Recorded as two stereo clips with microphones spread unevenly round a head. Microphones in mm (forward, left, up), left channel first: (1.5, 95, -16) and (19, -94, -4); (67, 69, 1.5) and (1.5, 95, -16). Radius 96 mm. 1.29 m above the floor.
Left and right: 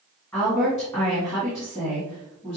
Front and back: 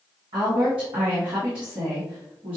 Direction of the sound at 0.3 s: 175° left.